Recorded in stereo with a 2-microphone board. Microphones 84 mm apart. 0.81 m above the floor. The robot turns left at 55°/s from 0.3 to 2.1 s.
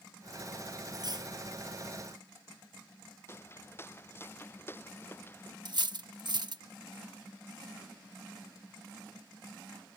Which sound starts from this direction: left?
Footsteps, at 3.3 s.